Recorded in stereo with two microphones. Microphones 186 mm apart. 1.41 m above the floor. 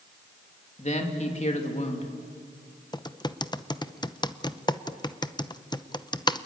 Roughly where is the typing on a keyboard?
Left.